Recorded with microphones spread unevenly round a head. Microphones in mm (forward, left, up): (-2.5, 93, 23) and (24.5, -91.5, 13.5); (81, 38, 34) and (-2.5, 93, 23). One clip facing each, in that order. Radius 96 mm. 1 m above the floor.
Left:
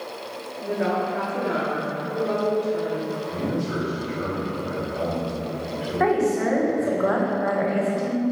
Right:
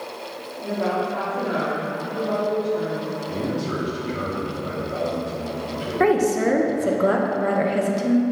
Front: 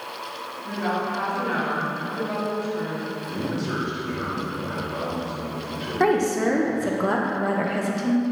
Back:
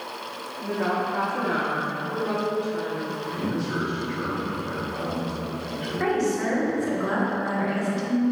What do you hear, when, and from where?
0.6 s a woman speaking: 175° left, 1.9 m; by 3.1 s 125° left, 3.5 m
3.3 s a man speaking: 55° right, 2.5 m
6.0 s a woman speaking: 55° right, 1.0 m